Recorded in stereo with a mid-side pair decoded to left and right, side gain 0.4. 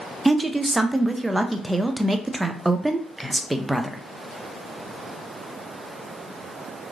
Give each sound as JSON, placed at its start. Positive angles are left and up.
{"t": 0.2, "sound": "a woman speaking", "azimuth_deg": -15, "distance_m": 0.5}